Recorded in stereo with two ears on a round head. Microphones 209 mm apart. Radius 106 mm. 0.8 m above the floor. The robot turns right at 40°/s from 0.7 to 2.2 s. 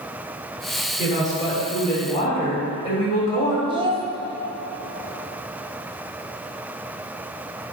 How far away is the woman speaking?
About 2 m.